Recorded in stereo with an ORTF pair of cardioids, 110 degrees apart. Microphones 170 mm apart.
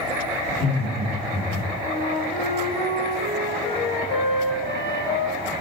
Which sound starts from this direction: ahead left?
A flute, at 1.8 s.